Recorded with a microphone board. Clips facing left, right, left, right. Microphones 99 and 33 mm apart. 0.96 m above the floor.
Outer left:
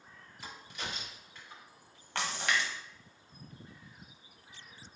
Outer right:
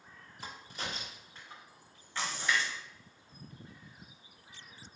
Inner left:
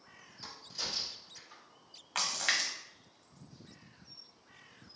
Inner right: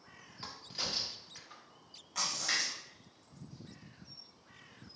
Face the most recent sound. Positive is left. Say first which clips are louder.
# even, inner left 3 dB
turn(degrees=70)  # may be behind; listen again after turning